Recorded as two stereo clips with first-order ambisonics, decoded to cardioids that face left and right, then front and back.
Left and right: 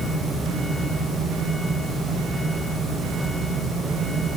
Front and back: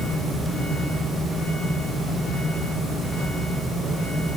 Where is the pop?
I don't hear a pop.